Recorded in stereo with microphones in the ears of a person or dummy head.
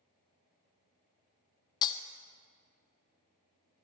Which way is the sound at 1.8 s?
30° left (ahead or behind).